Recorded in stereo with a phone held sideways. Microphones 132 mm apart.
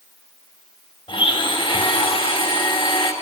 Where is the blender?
40° left (ahead or behind), 4.5 m.